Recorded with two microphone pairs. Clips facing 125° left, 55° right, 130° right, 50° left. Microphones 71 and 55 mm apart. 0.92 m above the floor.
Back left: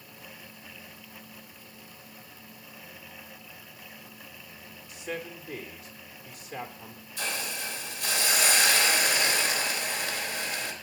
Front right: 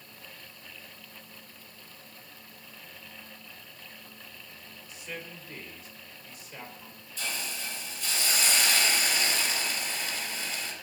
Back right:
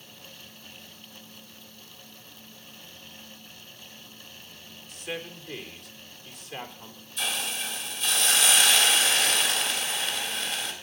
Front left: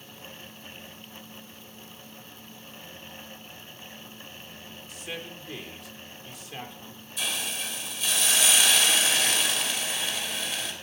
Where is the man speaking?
140° left, 3 m.